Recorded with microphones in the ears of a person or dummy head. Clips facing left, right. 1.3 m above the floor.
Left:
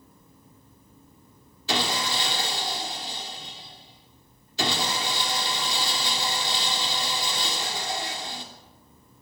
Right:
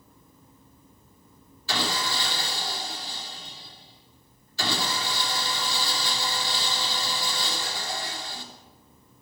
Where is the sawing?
20° left (ahead or behind), 3.5 m.